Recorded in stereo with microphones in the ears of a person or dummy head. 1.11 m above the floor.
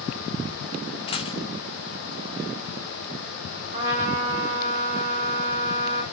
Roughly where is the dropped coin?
Left.